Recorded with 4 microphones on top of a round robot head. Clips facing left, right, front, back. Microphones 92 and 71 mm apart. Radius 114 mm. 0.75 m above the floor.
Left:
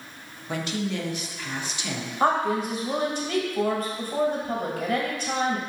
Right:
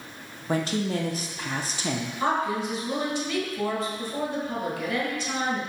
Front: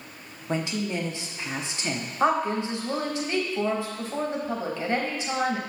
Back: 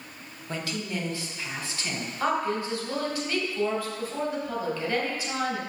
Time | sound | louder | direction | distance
0.5 | a woman speaking | right 3 dB, front 4 dB | 60° right | 0.8 m
2.2 | a woman speaking | left 4 dB, front 3 dB | 60° left | 1.3 m